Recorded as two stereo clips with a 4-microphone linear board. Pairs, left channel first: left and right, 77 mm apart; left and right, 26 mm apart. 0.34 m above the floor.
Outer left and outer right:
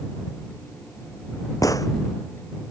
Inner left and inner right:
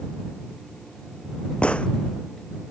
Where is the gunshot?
50° left (ahead or behind).